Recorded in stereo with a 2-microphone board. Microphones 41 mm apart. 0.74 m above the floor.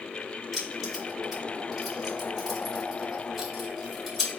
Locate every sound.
0.5 s keys jangling: centre (ahead or behind), 2.5 m